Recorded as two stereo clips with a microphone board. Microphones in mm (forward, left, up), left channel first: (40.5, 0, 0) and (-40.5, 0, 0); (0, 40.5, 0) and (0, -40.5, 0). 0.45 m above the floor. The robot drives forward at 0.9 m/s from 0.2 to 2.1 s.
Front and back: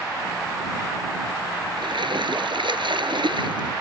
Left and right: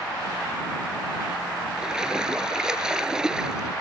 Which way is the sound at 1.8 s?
170° right.